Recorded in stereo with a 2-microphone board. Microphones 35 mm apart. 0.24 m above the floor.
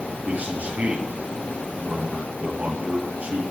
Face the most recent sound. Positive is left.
turn(degrees=-50)  # may be behind; listen again after turning